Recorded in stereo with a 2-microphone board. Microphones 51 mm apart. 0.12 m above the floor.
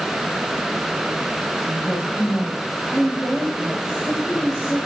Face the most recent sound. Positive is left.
turn(degrees=0)  # may be behind; listen again after turning